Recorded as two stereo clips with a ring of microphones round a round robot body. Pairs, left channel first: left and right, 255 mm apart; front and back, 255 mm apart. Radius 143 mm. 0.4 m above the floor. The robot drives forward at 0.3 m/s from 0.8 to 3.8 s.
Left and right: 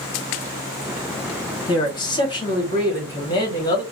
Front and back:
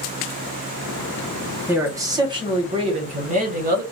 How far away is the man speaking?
About 1.1 m.